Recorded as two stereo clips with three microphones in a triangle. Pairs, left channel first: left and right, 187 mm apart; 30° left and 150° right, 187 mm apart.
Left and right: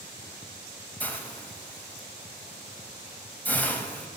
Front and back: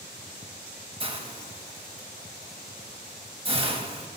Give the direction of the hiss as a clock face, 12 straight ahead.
6 o'clock.